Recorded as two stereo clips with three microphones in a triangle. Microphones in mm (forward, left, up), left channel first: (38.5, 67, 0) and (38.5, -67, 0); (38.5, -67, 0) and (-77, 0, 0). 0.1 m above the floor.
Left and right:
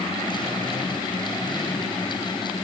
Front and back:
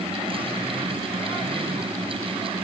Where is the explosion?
I don't hear an explosion.